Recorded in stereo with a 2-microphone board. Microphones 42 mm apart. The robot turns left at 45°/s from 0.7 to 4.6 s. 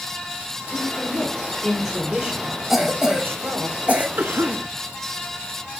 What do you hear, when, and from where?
0.7 s a man speaking: 55° left, 2.0 m; by 3.7 s 80° right, 2.0 m
2.7 s a cough: 5° right (ahead or behind), 1.1 m; by 4.1 s 35° right (ahead or behind), 1.1 m
4.2 s a cough: 55° right (ahead or behind), 1.2 m; by 4.7 s 60° right (ahead or behind), 1.2 m